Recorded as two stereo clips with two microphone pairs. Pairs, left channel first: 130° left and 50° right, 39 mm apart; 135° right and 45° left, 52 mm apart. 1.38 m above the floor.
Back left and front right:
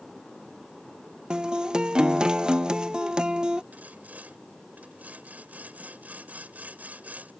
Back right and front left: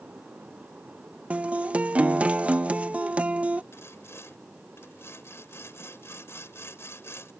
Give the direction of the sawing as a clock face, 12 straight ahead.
3 o'clock.